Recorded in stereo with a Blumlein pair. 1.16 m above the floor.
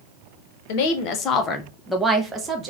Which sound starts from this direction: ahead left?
A woman speaking, at 0.7 s.